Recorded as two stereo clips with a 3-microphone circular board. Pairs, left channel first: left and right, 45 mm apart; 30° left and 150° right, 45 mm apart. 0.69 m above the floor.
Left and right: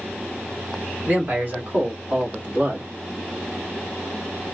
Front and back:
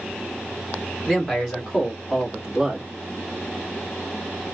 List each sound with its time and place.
1.1 s a man speaking: 45° right, 2.0 m; by 2.9 s 100° right, 1.3 m